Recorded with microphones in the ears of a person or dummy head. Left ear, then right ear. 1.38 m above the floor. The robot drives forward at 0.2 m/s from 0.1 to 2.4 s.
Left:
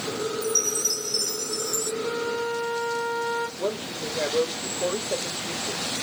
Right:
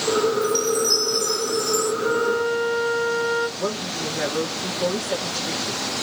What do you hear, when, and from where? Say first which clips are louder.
0.4 s a chime: right 4 dB; 20° right (ahead or behind), 0.7 m; by 1.9 s 10° right (ahead or behind), 1.0 m
2.0 s a flute: right 6 dB; 65° right (ahead or behind), 2 m
3.6 s a woman speaking: right 3 dB; 65° right (ahead or behind), 2 m